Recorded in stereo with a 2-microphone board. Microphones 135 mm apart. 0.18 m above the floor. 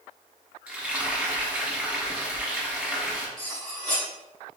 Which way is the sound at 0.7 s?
10° right (ahead or behind).